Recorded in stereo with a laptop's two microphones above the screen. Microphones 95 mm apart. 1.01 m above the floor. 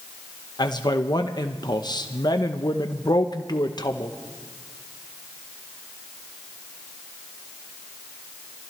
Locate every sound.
0.6 s a man speaking: 50° left (ahead or behind), 0.8 m